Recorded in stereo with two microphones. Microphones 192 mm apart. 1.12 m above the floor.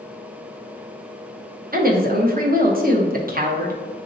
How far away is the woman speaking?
About 0.9 m.